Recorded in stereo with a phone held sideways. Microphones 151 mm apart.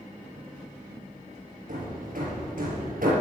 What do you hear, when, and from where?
1.7 s hammering: 65° right (ahead or behind), 5 m